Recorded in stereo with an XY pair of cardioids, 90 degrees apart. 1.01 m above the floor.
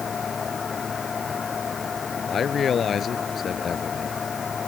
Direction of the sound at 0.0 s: 40° left.